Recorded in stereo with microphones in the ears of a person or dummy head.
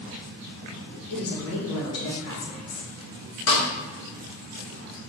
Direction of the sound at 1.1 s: 80° left.